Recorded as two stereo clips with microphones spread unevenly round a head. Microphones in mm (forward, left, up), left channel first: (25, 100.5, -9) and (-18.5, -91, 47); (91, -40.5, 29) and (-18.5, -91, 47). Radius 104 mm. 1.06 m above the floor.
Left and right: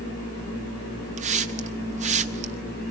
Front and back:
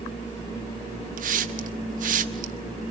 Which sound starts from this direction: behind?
A hiss, at 1.2 s.